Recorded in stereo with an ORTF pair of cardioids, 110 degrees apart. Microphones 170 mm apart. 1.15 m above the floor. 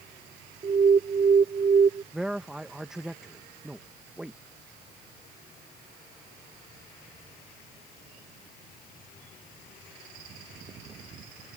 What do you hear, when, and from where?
0.6 s an alarm: 35° right
2.1 s a man speaking: 5° right